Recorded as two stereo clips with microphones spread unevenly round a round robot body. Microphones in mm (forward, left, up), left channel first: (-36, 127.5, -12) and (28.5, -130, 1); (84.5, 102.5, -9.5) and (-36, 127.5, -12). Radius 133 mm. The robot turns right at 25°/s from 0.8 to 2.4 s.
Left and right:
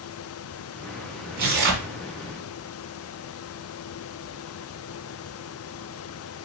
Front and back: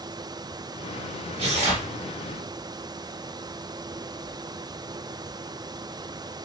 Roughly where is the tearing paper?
Behind right.